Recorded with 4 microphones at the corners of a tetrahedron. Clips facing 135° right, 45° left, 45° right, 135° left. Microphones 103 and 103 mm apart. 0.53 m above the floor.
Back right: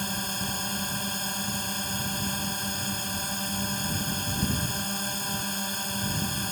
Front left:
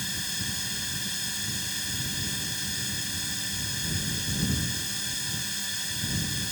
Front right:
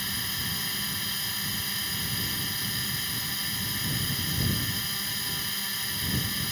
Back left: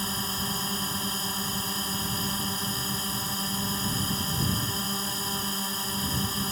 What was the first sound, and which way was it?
A drone, 175° right.